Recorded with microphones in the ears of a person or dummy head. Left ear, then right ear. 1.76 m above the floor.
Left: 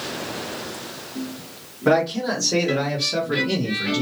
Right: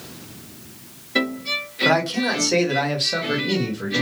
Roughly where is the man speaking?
Right.